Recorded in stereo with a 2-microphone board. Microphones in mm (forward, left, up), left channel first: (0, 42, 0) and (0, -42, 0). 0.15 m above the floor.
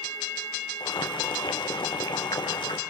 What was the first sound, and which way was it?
Boiling, 65° left (ahead or behind).